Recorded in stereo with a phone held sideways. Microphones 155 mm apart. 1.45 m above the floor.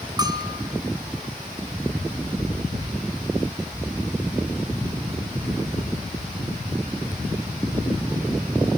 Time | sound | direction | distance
0.2 | a bell | 25° right (ahead or behind) | 1.5 m